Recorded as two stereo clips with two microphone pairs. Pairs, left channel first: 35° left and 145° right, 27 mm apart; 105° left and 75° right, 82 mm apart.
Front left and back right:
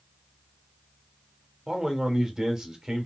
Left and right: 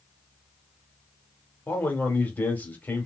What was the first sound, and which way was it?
A man speaking, 160° left.